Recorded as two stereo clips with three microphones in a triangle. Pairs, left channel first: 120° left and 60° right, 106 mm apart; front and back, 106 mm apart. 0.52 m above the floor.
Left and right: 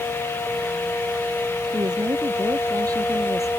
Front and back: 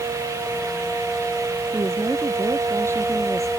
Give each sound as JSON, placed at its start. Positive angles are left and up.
{"t": 1.7, "sound": "a woman speaking", "azimuth_deg": -110}